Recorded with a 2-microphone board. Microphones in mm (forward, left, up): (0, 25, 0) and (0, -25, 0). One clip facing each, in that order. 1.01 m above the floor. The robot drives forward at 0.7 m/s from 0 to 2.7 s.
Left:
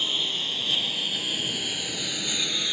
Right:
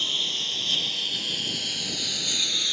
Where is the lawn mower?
10° left (ahead or behind); by 2.7 s 15° left (ahead or behind).